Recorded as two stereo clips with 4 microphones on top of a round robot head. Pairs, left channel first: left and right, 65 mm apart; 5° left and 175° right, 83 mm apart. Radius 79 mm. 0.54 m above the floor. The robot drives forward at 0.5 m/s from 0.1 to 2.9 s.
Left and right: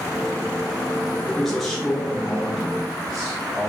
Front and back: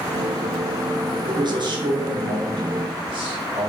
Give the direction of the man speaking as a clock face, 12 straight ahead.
6 o'clock.